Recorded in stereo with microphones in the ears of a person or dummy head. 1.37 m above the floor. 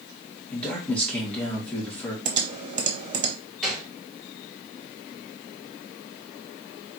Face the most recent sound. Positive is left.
turn(degrees=0)  # may be behind; listen again after turning